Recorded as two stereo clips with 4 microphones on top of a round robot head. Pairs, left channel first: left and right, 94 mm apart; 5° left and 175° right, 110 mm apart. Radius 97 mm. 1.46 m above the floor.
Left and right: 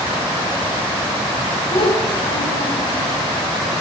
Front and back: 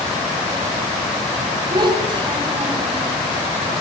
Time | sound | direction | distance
1.7 | a child speaking | 140° left | 5.5 m